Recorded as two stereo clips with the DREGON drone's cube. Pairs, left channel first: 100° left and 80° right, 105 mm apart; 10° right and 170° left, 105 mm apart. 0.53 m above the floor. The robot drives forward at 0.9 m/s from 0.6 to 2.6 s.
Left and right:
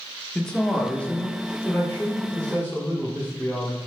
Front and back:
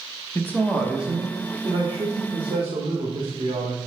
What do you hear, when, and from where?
0.3 s a man speaking: 30° left, 0.9 m; by 3.8 s 175° left, 1.8 m